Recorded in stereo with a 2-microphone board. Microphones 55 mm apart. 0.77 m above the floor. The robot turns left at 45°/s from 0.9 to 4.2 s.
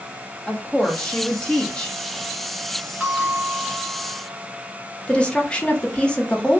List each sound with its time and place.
0.5 s a woman speaking: 25° left (ahead or behind), 0.9 m; by 2.0 s 15° left (ahead or behind), 0.9 m
3.0 s a bell: straight ahead, 2 m; by 4.2 s 55° right, 2 m
5.1 s a woman speaking: 20° left (ahead or behind), 0.8 m